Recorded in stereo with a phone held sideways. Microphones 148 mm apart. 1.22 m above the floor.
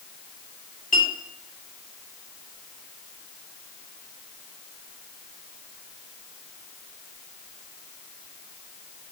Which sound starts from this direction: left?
A clink, at 0.9 s.